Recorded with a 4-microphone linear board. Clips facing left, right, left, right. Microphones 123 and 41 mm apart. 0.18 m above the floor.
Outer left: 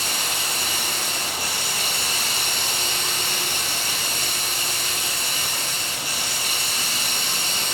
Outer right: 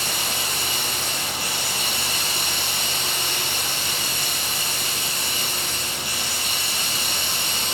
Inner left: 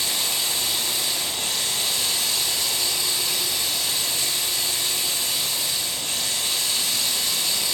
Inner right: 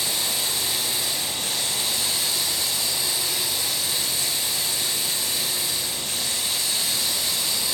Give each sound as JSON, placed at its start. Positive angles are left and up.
{"t": 0.0, "sound": "running water", "side_deg": 40, "distance_m": 3.0}